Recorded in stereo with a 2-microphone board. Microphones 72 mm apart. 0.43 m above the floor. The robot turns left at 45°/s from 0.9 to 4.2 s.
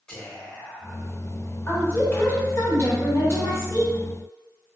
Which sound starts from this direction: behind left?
A woman speaking, at 1.7 s.